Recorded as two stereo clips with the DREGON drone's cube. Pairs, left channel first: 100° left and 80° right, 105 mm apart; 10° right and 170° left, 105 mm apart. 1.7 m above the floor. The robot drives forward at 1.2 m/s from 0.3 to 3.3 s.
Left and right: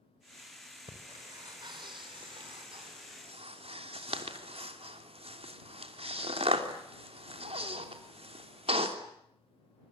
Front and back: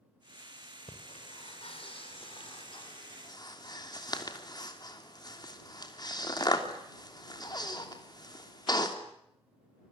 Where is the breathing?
30° right, 5 m; by 9.0 s 60° right, 3 m.